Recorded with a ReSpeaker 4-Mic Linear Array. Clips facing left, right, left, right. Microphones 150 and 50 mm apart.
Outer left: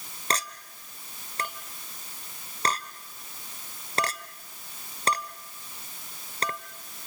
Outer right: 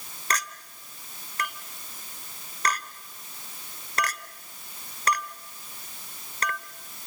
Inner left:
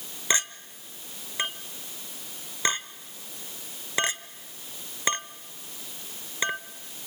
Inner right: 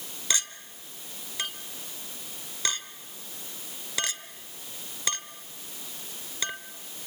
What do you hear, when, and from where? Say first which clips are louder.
0.3 s a clink: even, inner left 4 dB; 30° left (ahead or behind), 1.1 m